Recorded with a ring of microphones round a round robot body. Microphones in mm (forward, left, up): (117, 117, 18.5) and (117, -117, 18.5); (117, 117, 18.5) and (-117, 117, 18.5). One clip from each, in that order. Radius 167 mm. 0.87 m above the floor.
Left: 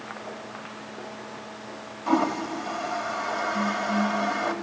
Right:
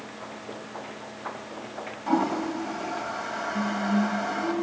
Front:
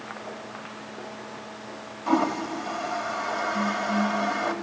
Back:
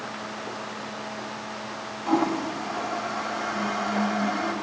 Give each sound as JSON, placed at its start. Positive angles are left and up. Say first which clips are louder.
{"t": 2.1, "sound": "a toilet flushing", "louder": "left 1 dB, even", "azimuth_deg": 40, "distance_m": 1.6}
{"t": 3.5, "sound": "singing", "louder": "left 2 dB, front 1 dB", "azimuth_deg": 5, "distance_m": 4.5}